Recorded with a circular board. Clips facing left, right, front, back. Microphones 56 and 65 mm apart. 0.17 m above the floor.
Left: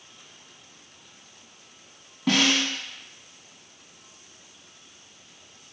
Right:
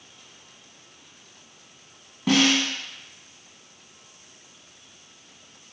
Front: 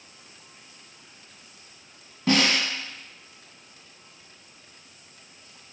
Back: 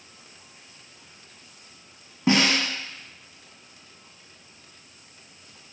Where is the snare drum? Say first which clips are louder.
Right 2 dB, back 1 dB; 170° right, 0.8 m.